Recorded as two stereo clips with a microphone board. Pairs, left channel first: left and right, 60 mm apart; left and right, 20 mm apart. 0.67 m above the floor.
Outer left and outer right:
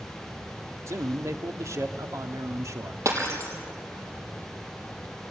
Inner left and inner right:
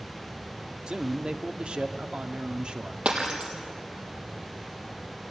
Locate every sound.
0.9 s a man speaking: 55° right (ahead or behind), 1.5 m
3.0 s breaking glass: 55° right (ahead or behind), 3.5 m